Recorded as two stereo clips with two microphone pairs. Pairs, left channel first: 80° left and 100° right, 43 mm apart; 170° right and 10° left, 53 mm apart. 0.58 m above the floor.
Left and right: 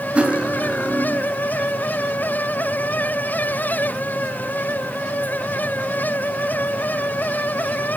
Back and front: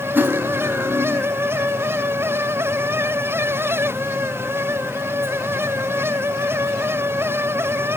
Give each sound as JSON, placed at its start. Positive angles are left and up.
{"t": 0.1, "sound": "cutlery clinking", "azimuth_deg": -40, "distance_m": 2.5}